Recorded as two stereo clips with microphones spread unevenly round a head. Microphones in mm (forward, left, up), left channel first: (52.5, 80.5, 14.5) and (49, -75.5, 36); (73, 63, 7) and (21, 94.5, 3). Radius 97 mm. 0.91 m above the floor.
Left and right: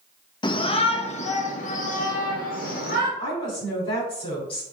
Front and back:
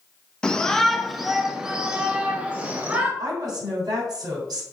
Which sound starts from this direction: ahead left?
A shout, at 0.4 s.